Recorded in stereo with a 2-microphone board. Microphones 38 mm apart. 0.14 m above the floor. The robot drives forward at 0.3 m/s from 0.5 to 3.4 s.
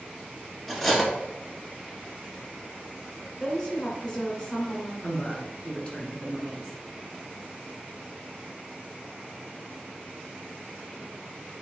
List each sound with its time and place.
0.7 s cutlery clinking: centre (ahead or behind), 1.1 m
3.4 s a woman speaking: 25° left (ahead or behind), 1.5 m
5.0 s a woman speaking: 35° left (ahead or behind), 1.3 m